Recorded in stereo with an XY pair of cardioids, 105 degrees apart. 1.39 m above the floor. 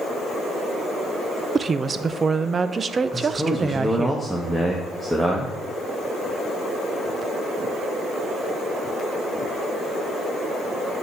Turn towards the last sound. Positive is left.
turn(degrees=-10)